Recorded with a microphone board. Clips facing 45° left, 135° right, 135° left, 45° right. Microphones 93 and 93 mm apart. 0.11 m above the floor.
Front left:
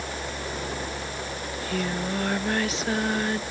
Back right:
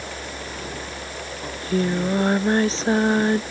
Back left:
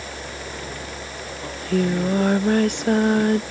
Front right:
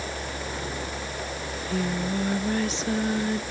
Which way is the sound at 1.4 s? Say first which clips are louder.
Back right 7 dB, back left 8 dB; 165° left.